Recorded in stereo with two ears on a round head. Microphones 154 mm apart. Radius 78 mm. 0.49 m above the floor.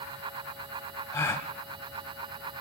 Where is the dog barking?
I don't hear a dog barking.